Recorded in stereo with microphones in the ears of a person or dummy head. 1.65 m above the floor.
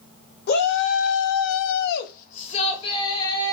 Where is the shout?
50° left (ahead or behind), 0.9 m; by 3.5 s 15° left (ahead or behind), 1.5 m.